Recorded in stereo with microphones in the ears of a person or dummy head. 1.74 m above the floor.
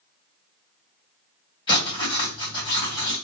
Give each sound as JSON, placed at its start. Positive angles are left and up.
{"t": 1.7, "sound": "writing", "side_deg": 25, "distance_m": 2.0}